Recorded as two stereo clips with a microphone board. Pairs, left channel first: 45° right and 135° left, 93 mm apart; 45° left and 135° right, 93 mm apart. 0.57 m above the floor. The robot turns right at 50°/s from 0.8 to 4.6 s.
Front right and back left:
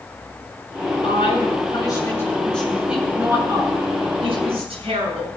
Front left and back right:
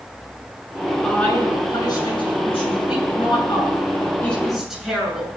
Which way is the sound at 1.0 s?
40° right.